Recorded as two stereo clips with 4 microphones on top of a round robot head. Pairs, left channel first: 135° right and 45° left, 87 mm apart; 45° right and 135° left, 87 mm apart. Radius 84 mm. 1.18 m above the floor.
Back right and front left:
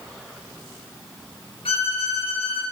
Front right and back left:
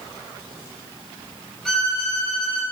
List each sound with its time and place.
1.6 s a violin: 130° right, 5 m